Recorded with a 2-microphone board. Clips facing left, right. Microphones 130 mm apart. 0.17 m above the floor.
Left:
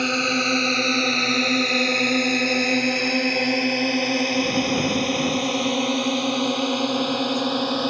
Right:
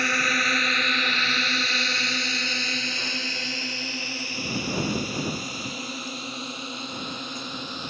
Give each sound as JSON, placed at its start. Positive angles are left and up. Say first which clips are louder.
{"t": 0.0, "sound": "a drone", "louder": "left 5 dB", "side_deg": 20}